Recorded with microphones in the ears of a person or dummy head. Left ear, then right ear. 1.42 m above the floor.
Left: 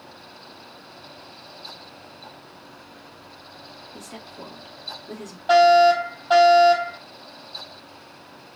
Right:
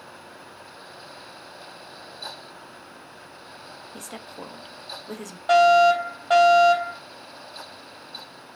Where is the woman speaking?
40° right (ahead or behind), 0.6 m.